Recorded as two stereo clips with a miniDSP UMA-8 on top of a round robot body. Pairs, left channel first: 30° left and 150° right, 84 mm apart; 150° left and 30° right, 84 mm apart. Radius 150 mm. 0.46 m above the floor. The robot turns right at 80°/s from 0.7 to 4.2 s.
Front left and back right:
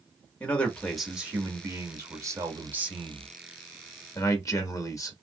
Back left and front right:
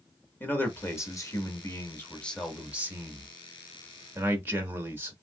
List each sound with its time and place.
0.4 s a man speaking: 100° left, 1.4 m; by 5.1 s 20° left, 1.4 m